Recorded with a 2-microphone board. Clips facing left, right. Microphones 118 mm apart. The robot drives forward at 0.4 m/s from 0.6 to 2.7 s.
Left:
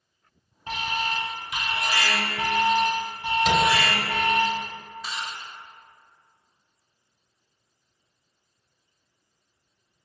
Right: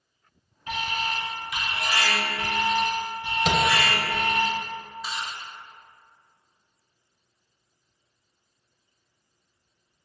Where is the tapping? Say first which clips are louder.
Left 2 dB; 45° right (ahead or behind), 0.5 m.